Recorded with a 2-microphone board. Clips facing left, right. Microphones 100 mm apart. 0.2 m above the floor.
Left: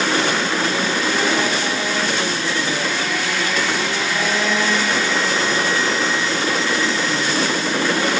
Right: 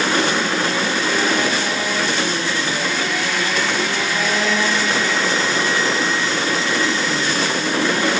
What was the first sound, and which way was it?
Only background noise.